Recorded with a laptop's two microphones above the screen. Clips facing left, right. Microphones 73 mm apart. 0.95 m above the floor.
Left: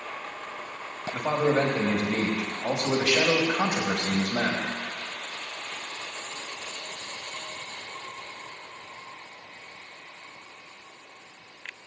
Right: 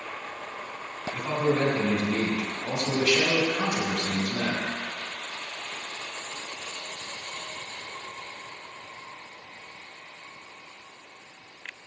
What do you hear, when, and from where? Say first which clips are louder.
1.1 s a man speaking: left 2 dB; 70° left (ahead or behind), 1.4 m